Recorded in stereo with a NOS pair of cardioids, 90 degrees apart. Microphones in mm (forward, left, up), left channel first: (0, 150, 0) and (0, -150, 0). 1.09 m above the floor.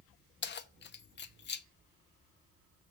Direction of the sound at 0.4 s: 35° left.